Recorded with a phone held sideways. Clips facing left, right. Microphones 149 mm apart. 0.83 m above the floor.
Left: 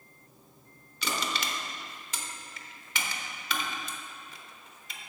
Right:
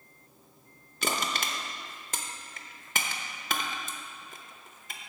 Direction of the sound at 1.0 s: 50° right (ahead or behind).